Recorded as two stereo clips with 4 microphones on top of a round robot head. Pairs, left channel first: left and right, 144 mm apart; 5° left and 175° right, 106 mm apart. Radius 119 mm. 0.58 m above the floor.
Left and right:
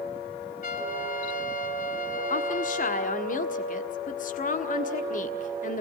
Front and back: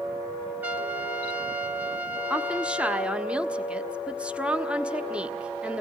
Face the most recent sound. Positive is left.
turn(degrees=105)